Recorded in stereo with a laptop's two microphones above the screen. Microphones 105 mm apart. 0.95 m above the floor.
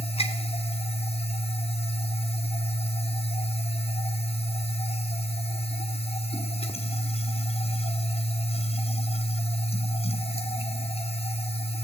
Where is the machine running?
70° left (ahead or behind), 1.0 m.